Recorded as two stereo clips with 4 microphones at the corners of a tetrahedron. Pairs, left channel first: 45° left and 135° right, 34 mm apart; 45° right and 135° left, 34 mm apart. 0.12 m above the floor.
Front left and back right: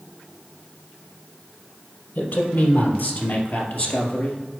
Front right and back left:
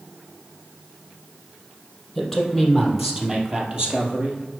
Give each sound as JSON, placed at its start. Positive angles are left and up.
{"t": 2.1, "sound": "a man speaking", "azimuth_deg": 40, "distance_m": 3.0}